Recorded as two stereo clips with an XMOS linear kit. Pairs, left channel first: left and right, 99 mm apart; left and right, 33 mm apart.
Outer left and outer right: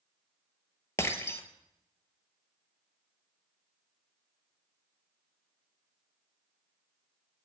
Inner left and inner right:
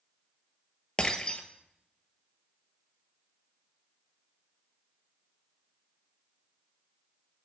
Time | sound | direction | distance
1.0 | breaking glass | 25° left (ahead or behind) | 0.6 m